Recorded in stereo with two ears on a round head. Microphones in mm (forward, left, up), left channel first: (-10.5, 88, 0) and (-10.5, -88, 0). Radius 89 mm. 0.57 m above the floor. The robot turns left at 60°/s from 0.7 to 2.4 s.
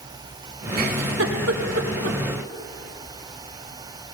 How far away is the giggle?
About 1.1 m.